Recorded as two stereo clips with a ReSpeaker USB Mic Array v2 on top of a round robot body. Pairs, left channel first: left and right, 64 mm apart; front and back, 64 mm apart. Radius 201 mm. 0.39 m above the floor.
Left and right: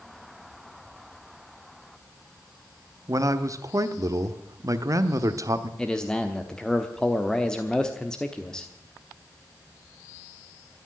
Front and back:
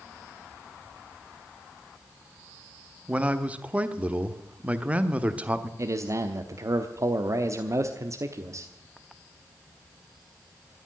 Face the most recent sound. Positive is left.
turn(degrees=165)